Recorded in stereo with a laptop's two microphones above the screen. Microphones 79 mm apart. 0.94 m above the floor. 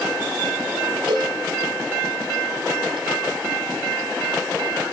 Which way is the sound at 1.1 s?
80° right.